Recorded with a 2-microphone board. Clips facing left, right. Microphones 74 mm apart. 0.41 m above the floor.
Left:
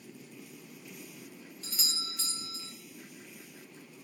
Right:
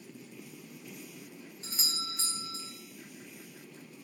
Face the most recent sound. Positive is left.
turn(degrees=-30)  # may be behind; listen again after turning